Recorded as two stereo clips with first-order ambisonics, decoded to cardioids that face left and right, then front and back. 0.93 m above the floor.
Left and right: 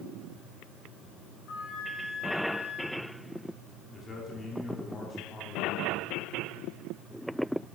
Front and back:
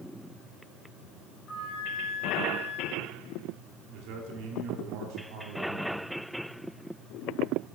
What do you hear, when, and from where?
1.5 s a flute: 60° left, 5 m
3.9 s a man speaking: 165° left, 2.5 m